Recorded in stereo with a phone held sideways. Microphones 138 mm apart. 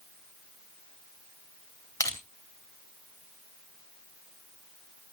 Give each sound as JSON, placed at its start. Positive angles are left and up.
{"t": 2.0, "sound": "crushing", "side_deg": 20, "distance_m": 2.5}